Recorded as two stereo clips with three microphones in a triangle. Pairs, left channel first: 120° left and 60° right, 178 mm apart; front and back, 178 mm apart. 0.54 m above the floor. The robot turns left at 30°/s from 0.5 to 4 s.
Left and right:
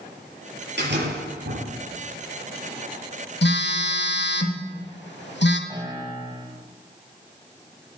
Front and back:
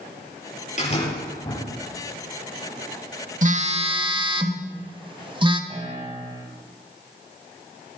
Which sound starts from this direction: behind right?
A piano, at 5.7 s.